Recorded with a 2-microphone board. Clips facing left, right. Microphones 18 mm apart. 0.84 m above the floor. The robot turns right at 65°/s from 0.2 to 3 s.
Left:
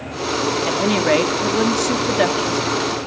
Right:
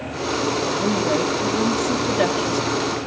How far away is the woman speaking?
About 1.4 m.